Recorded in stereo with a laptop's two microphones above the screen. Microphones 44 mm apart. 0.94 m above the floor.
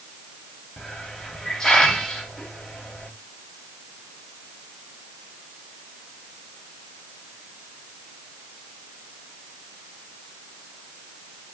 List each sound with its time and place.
0.8 s a hiss: 15° left (ahead or behind), 2.5 m